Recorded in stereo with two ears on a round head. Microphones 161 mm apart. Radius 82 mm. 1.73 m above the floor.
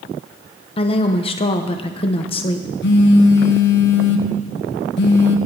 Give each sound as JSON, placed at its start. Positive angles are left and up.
{"t": 0.8, "sound": "a woman speaking", "side_deg": 30, "distance_m": 0.8}
{"t": 2.8, "sound": "a phone buzzing", "side_deg": 70, "distance_m": 1.2}